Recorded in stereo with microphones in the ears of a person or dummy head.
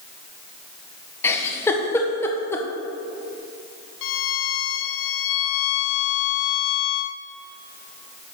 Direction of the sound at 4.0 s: 75° left (ahead or behind).